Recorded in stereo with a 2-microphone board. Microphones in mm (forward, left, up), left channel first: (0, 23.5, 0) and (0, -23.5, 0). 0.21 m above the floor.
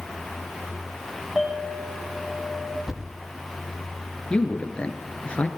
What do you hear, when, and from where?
1.4 s a clink: 20° right (ahead or behind), 7.5 m
2.9 s a thud: 5° right (ahead or behind), 5.5 m
4.3 s a man speaking: 25° left (ahead or behind), 2.5 m